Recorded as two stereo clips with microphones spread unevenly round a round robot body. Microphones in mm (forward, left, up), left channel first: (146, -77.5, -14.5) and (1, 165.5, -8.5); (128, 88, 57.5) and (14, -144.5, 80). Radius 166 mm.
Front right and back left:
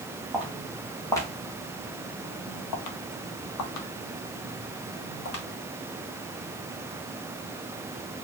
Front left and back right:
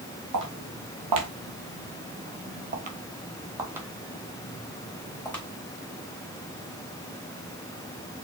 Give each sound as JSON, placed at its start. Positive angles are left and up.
{"t": 0.3, "sound": "footsteps", "azimuth_deg": -155, "distance_m": 1.3}